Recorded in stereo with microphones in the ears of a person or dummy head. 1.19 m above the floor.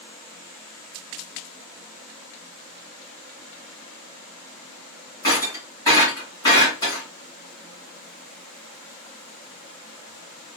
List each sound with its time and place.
5.2 s breaking glass: 25° left (ahead or behind), 2 m